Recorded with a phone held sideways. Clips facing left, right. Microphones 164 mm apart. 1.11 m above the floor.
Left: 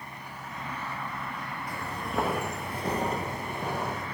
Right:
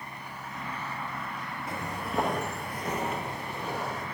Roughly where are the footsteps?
Right.